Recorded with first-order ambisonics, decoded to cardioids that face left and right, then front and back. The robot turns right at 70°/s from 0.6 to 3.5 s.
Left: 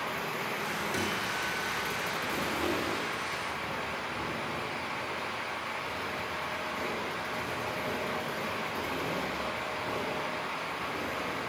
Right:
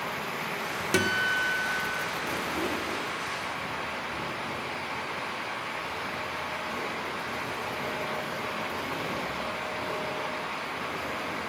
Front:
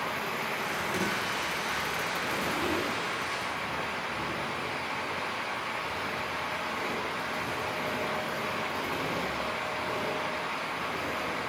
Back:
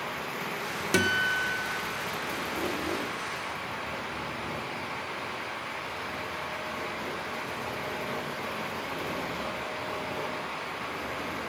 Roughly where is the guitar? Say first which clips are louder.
Right 11 dB, back 5 dB; behind right.